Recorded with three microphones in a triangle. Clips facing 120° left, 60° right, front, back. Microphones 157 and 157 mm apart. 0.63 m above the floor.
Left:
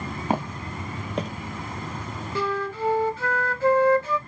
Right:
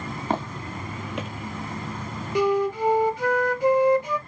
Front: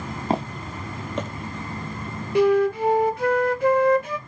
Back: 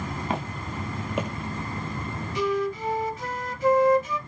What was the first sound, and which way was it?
Footsteps, 45° left.